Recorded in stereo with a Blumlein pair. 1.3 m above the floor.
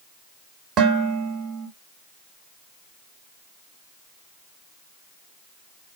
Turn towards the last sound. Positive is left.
turn(degrees=-25)